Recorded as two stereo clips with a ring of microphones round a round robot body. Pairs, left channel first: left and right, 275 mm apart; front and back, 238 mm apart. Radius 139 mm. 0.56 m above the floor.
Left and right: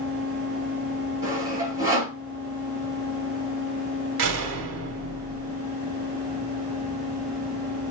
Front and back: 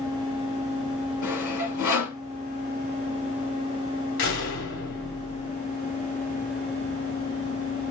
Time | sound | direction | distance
1.2 | sawing | 10° right | 6 m
4.2 | a door slam | 45° right | 2.5 m